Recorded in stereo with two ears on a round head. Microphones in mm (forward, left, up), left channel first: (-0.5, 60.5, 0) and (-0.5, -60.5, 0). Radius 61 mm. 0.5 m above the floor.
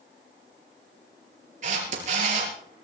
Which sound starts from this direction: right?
A camera shutter, at 1.6 s.